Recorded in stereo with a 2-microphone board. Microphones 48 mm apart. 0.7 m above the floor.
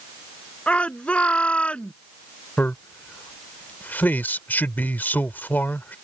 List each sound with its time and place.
0.7 s a shout: 25° left (ahead or behind)
2.6 s a man speaking: 40° left (ahead or behind)